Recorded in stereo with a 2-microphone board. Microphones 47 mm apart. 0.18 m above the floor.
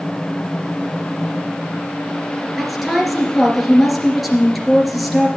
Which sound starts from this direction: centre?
A woman speaking, at 2.6 s.